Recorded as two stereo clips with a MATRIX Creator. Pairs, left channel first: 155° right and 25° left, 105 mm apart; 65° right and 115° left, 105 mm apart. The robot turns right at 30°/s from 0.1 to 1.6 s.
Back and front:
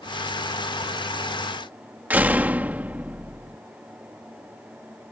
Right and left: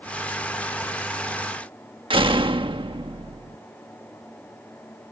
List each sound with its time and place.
2.1 s a door slam: 95° left